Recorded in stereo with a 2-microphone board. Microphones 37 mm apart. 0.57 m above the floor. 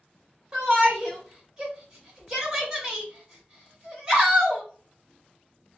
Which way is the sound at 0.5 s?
20° right (ahead or behind).